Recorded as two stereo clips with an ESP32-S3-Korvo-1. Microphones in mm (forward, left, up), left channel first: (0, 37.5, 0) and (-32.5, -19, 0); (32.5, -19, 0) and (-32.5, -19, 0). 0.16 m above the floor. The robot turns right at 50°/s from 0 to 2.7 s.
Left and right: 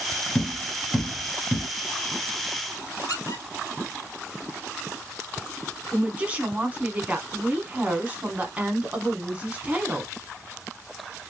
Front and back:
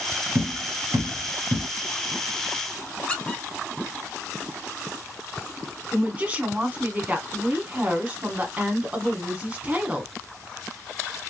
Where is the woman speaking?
150° right, 1.2 m.